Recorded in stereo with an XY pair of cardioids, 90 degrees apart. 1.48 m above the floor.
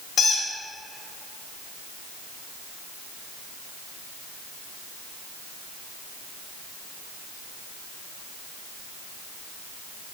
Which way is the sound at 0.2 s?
70° left.